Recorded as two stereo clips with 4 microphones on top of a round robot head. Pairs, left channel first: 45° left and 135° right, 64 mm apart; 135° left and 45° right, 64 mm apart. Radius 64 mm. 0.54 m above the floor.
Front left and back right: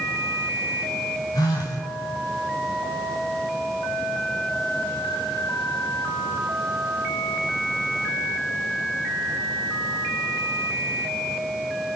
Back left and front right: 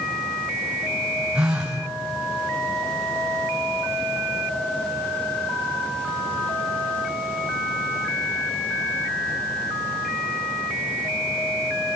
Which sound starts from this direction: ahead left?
A phone buzzing, at 1.4 s.